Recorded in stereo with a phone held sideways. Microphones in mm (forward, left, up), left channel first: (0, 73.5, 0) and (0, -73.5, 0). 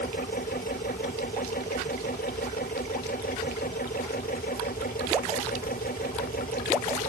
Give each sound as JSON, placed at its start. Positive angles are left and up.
{"t": 0.0, "sound": "a machine running", "side_deg": 85}